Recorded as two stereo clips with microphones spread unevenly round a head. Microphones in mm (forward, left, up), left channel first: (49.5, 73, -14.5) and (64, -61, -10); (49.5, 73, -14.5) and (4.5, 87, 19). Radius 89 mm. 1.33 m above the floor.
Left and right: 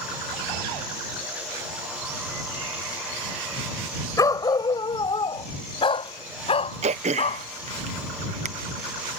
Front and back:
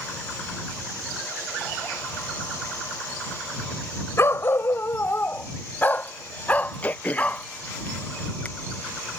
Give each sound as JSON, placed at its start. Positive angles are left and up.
{"t": 4.2, "sound": "a dog barking", "azimuth_deg": 30}
{"t": 6.8, "sound": "throat clearing", "azimuth_deg": -50}